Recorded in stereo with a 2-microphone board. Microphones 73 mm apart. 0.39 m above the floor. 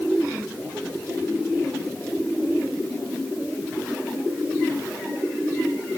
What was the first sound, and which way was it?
Only background noise.